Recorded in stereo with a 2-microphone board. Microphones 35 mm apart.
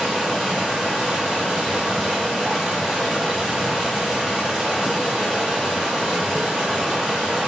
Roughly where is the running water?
Centre.